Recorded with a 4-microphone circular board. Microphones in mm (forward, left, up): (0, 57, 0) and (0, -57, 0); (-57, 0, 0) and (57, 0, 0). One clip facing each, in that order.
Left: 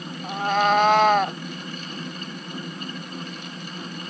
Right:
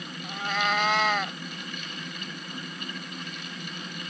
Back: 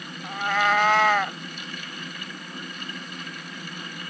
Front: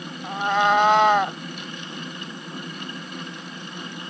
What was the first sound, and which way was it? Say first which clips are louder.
A cat meowing: left 8 dB, front 3 dB; 65° left.